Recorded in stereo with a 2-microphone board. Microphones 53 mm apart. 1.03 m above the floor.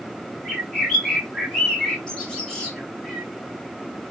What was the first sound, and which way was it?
A bird, 10° left (ahead or behind).